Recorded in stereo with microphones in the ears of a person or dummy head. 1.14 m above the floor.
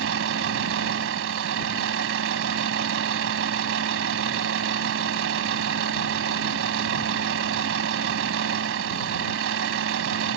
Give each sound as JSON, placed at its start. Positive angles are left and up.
{"t": 0.0, "sound": "a vehicle", "side_deg": -75}